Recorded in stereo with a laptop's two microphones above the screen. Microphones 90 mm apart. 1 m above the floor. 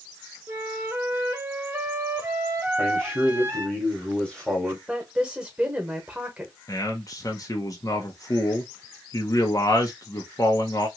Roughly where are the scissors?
No scissors in this recording.